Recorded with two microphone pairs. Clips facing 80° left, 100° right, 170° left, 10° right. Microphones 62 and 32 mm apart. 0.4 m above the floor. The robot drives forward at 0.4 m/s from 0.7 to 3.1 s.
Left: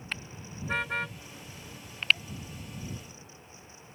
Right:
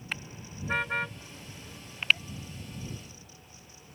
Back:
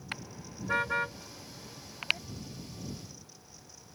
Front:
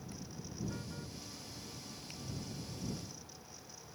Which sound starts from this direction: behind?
A car horn, at 0.1 s.